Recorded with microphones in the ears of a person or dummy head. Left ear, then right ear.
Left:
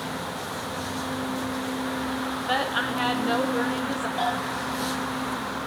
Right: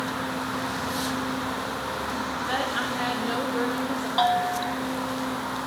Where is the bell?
35° right (ahead or behind), 2.5 m.